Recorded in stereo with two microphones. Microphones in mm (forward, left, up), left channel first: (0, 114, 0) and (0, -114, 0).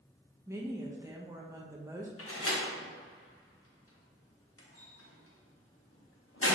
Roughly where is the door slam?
Left.